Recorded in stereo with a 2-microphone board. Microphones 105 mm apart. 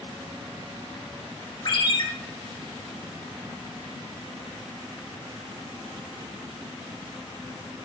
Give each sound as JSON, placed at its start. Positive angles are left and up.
{"t": 1.6, "sound": "a ringtone", "side_deg": 45, "distance_m": 0.6}